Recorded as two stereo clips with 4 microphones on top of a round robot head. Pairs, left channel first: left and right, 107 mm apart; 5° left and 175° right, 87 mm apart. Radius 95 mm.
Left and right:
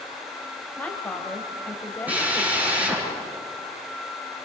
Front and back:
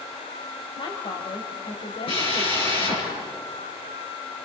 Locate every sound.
0.8 s a woman speaking: 15° left, 3 m
2.1 s a drill: 15° right, 8.5 m